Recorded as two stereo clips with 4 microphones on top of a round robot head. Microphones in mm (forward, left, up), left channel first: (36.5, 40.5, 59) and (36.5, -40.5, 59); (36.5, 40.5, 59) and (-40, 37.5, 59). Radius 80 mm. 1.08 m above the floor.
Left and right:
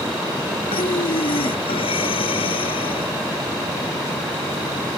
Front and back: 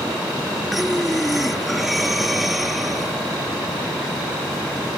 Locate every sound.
0.7 s breathing: 95° left